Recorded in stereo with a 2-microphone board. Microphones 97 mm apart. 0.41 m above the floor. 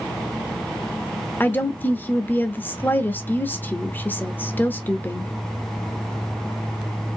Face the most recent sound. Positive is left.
turn(degrees=20)  # may be behind; listen again after turning